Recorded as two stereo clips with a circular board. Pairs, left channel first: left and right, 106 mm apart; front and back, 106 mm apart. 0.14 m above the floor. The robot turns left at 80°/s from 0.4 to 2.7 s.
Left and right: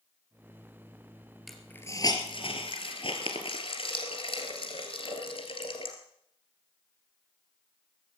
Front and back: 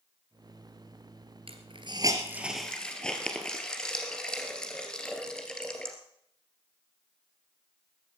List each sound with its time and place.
1.5 s a hiss: straight behind, 2 m; by 6.0 s 80° left, 2 m